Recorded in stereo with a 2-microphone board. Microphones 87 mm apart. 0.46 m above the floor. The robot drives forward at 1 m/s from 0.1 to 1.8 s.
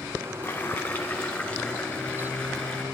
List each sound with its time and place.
0.4 s boiling: 25° left (ahead or behind), 1.4 m; by 2.8 s 10° left (ahead or behind), 2.5 m